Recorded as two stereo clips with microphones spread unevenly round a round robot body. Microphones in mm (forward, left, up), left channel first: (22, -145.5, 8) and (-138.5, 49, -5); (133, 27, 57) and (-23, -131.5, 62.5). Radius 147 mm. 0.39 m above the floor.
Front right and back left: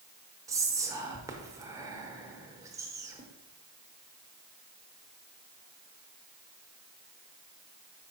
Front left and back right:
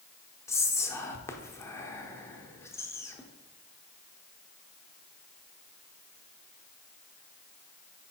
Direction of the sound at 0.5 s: 90° left.